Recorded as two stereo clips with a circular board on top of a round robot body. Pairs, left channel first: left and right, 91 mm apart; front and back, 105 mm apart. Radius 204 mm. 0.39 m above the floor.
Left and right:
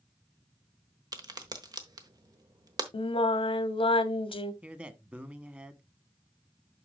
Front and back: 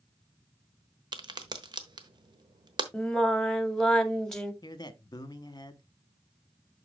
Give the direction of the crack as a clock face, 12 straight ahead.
5 o'clock.